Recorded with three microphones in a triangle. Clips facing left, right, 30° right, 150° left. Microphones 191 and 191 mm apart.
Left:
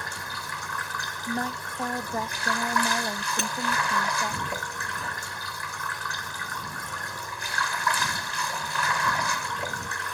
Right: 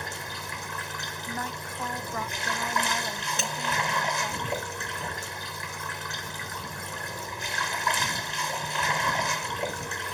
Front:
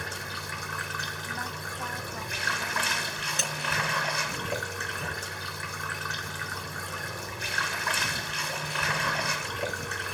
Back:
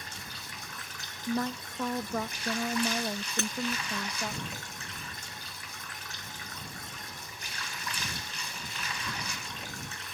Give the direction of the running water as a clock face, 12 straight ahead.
1 o'clock.